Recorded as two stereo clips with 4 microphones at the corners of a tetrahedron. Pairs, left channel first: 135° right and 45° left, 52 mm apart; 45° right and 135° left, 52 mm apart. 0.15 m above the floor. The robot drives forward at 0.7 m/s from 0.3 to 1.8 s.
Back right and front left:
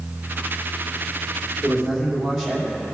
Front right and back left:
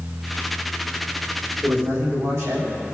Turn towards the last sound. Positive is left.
turn(degrees=130)